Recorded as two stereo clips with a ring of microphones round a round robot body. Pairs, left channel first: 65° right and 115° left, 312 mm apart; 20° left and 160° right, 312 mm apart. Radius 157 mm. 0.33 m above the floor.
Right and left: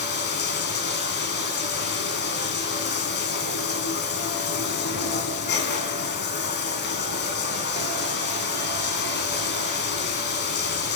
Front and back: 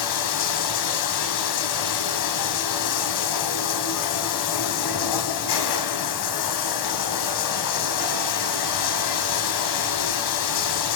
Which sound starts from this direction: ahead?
Running water, at 0.0 s.